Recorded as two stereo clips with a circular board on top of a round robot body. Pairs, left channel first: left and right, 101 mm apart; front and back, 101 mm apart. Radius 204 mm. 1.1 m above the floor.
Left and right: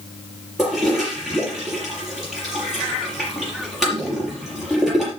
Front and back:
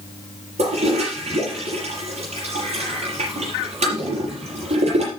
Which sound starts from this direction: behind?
A toilet flushing, at 0.6 s.